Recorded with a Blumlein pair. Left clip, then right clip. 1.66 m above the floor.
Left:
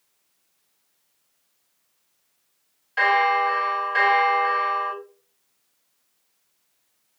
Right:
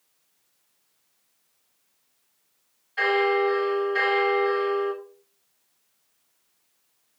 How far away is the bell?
About 2 m.